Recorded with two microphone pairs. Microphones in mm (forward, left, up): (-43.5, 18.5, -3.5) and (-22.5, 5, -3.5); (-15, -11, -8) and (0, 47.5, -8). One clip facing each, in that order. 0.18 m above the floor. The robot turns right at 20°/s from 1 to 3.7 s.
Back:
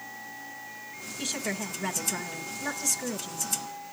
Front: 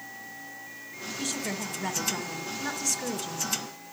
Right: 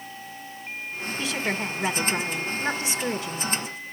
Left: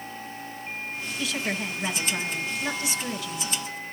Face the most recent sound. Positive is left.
turn(degrees=-85)